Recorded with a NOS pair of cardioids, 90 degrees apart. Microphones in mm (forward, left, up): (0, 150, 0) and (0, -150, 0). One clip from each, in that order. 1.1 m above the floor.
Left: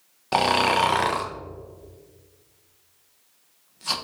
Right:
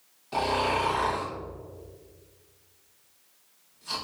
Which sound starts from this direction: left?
Snoring, at 0.3 s.